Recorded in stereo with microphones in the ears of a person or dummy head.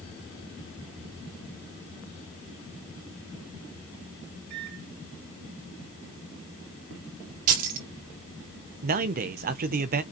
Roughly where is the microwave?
Right.